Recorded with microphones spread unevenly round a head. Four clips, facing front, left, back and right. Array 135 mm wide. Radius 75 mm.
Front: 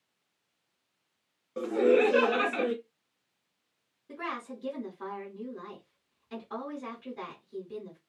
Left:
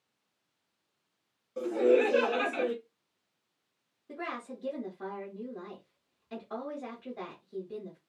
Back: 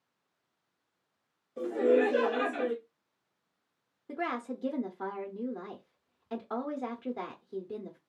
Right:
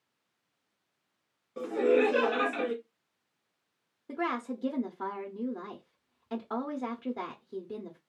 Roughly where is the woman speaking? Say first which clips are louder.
Right 6 dB, back 3 dB; behind right.